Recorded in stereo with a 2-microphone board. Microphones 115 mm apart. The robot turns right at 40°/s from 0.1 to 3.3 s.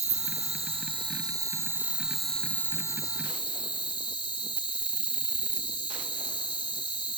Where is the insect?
85° right, 0.9 m; by 7.2 s 45° left, 0.9 m.